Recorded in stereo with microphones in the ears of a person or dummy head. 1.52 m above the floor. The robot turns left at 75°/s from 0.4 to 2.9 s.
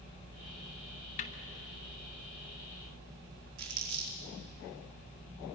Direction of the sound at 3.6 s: 70° right (ahead or behind).